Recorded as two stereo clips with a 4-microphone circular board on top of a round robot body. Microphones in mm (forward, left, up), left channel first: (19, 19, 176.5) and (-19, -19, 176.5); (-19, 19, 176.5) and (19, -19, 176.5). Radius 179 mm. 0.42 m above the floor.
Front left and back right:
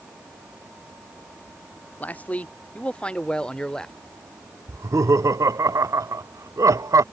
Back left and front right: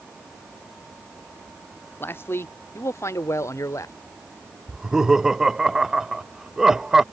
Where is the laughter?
125° right.